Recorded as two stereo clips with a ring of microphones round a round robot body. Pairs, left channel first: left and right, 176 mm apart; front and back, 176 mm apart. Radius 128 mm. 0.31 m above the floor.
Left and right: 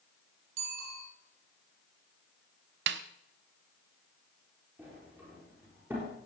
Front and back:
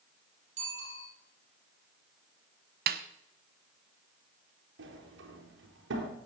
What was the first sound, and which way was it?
A bicycle bell, 115° right.